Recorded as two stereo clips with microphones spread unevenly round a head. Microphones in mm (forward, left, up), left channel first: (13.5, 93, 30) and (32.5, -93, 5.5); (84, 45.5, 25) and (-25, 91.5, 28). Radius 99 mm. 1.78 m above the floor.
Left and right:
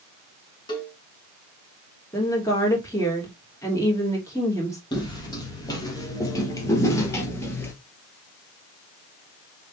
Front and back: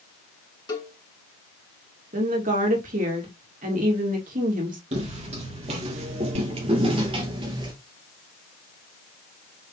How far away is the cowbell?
About 3 m.